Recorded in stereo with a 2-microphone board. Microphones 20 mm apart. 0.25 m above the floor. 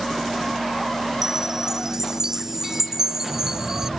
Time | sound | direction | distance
1.2 | a chime | 25° right (ahead or behind) | ?